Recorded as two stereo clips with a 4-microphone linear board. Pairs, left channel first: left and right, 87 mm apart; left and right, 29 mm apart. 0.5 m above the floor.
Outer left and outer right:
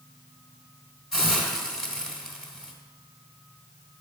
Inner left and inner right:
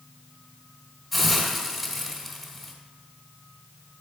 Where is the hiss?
5° left (ahead or behind), 2.5 m.